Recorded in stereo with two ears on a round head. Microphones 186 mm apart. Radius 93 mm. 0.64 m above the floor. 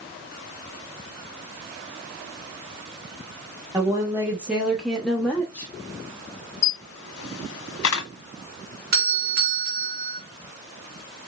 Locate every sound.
3.7 s a woman speaking: 15° right (ahead or behind), 1.2 m; by 5.7 s 10° left (ahead or behind), 1.3 m
6.6 s a camera shutter: 85° left, 1.6 m
8.9 s a doorbell: 45° right (ahead or behind), 1.6 m